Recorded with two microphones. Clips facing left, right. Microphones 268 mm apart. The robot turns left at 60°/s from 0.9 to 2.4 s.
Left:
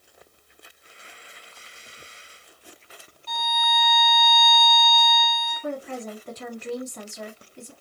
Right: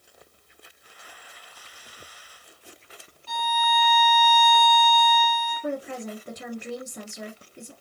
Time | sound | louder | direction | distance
3.3 | a violin | right 2 dB | 5° right (ahead or behind) | 1.4 m
5.6 | a woman speaking | even | 20° right (ahead or behind) | 1.2 m